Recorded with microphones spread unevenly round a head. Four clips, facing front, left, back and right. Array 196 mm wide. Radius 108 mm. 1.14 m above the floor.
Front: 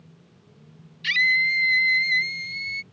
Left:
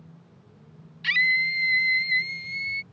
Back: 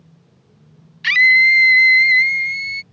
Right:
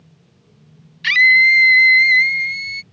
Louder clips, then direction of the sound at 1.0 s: Right 11 dB, back 9 dB; 145° right.